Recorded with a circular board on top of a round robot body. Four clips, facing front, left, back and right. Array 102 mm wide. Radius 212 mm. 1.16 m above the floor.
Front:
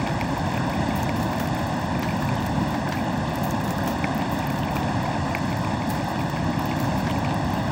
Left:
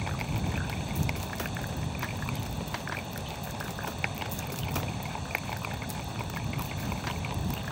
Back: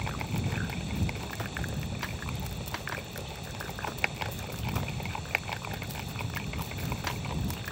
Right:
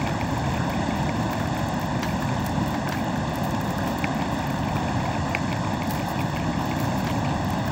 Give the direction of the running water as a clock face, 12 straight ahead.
1 o'clock.